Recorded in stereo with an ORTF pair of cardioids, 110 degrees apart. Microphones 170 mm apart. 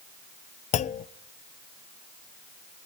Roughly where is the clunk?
Ahead left.